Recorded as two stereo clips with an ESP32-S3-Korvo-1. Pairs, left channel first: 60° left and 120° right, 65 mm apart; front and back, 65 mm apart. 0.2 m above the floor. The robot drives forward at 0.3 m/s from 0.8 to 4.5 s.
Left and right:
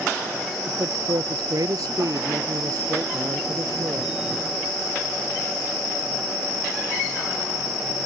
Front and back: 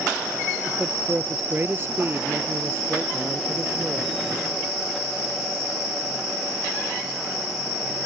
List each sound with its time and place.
0.7 s a man speaking: 125° right; by 4.1 s 135° right